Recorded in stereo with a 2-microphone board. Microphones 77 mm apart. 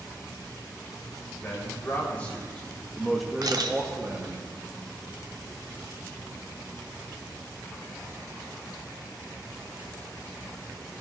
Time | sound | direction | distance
1.4 | a man speaking | 20° left (ahead or behind) | 3.5 m
3.4 | a camera shutter | 55° right (ahead or behind) | 0.8 m